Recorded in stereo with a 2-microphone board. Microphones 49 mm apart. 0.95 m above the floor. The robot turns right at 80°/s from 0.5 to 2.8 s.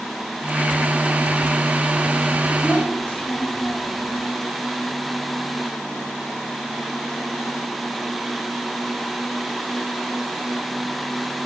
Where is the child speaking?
25° left (ahead or behind), 2.5 m; by 4.2 s 40° left (ahead or behind), 2.5 m.